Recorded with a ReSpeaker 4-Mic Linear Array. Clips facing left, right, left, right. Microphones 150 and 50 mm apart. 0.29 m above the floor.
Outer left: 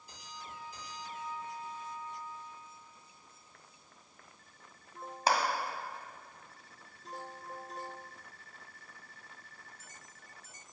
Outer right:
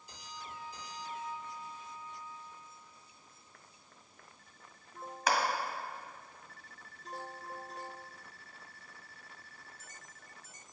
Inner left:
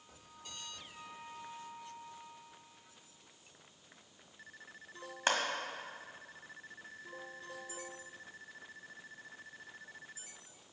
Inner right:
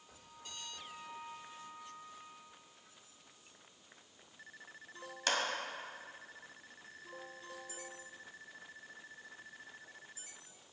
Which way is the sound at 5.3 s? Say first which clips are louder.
Outer left 1 dB, inner left 3 dB; 35° left (ahead or behind).